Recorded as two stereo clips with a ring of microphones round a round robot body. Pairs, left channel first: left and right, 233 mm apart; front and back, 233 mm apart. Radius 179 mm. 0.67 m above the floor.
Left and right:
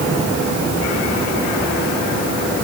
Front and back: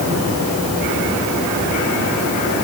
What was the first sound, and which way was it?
Only background noise.